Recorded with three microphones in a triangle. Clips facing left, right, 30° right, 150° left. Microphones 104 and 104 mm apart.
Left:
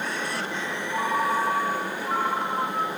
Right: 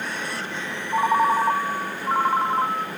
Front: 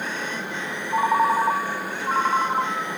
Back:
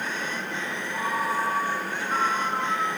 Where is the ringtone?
40° right, 1.2 m.